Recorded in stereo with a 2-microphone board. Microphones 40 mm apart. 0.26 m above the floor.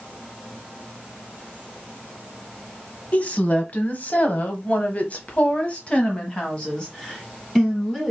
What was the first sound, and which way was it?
A woman speaking, 40° left (ahead or behind).